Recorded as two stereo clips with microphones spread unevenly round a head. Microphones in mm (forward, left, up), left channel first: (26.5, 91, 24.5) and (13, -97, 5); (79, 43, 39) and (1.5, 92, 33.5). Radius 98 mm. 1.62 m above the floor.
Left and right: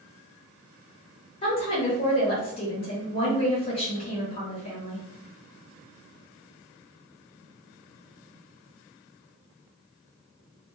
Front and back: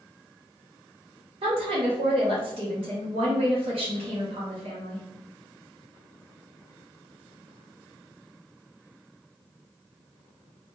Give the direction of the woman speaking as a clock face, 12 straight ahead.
7 o'clock.